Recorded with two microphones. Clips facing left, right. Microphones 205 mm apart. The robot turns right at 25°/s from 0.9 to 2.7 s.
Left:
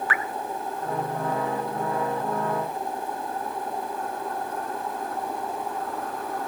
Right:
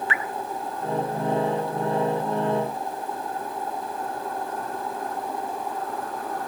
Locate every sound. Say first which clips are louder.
0.1 s dripping: even; 25° right (ahead or behind), 0.8 m